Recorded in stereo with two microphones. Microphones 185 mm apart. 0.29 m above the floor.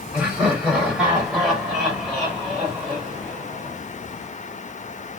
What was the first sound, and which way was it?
Laughter, 5° right (ahead or behind).